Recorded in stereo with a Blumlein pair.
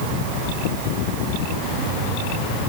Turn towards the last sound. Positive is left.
No sound to turn to.